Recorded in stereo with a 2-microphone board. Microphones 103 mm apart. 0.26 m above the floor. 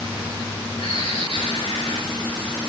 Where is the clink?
I don't hear a clink.